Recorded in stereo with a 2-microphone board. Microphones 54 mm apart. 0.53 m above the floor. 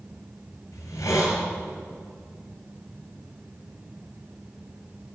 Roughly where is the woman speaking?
I don't hear a woman speaking.